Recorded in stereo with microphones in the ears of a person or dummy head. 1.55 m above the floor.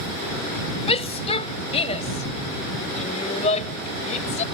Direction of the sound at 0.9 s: 30° left (ahead or behind).